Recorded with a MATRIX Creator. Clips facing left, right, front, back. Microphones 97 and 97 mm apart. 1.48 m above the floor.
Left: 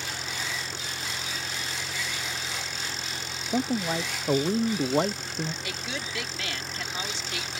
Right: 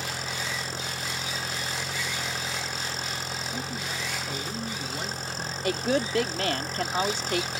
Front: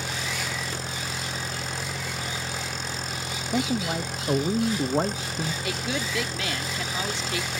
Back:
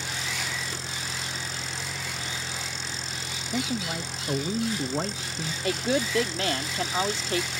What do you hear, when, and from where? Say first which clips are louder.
0.0 s an engine running: right 2 dB, front 2 dB; 40° right
3.5 s a man speaking: left 7 dB, front 4 dB; 60° left
5.6 s a woman speaking: right 10 dB, back 4 dB; 130° right